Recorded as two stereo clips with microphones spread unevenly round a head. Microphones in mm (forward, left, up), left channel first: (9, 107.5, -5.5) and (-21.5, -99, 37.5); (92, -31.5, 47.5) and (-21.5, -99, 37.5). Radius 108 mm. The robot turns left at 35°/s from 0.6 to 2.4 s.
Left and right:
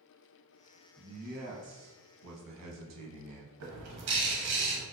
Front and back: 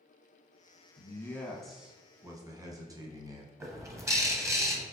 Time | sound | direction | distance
1.0 | a man speaking | 35° right | 1.0 m
3.6 | a bird | 80° right | 0.8 m